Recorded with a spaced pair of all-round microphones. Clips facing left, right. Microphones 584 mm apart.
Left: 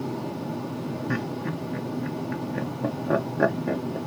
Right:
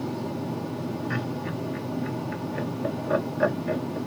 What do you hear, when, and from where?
1.1 s laughter: 60° left (ahead or behind), 1.1 m